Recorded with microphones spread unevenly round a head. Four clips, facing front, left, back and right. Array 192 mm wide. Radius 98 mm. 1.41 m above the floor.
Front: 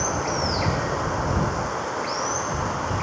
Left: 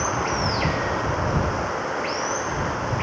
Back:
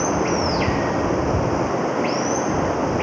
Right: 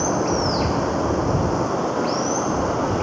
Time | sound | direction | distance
0.0 | running water | 145° right | ?